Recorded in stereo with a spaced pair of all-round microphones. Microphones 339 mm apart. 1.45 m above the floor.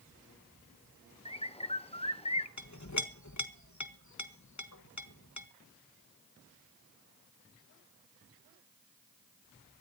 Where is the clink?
55° left (ahead or behind), 1.2 m.